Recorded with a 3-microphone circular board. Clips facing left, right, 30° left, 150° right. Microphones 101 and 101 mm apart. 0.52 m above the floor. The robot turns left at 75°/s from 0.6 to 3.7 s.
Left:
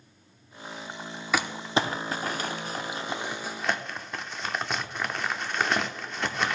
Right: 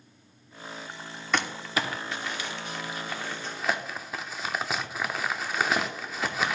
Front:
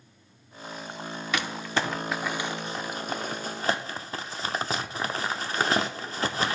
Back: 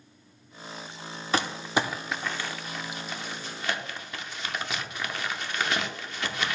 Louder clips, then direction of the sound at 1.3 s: Left 2 dB, back 3 dB; 175° left.